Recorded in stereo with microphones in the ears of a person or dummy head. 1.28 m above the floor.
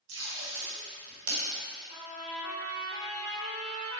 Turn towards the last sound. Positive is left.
turn(degrees=-20)  # may be behind; listen again after turning